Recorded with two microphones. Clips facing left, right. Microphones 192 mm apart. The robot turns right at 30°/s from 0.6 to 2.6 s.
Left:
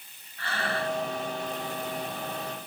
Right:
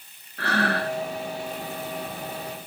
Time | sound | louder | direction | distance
0.4 | breathing | right 6 dB | 70° right (ahead or behind) | 0.5 m